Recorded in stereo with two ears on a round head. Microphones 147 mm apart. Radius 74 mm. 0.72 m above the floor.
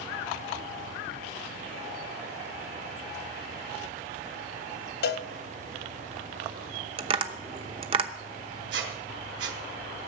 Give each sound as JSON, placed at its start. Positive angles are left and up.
{"t": 5.0, "sound": "a cowbell", "side_deg": 70, "distance_m": 0.7}
{"t": 7.0, "sound": "tapping", "side_deg": -30, "distance_m": 0.8}
{"t": 8.7, "sound": "a squeak", "side_deg": -70, "distance_m": 2.5}